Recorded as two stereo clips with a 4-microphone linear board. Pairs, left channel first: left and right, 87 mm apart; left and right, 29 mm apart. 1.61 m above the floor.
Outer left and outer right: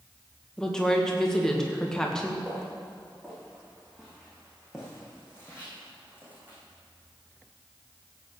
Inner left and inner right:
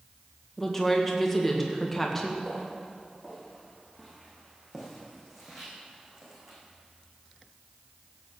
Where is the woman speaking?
5° left (ahead or behind), 2 m.